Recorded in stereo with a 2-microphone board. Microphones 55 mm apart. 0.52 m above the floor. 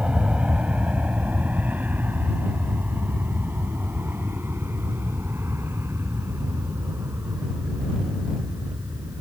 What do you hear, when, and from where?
0.0 s an aircraft: 20° right (ahead or behind); by 9.2 s 55° right (ahead or behind)